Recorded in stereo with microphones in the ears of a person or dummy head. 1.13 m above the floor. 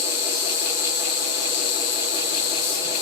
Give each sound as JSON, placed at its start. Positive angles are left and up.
{"t": 0.0, "sound": "an insect", "side_deg": 55, "distance_m": 1.7}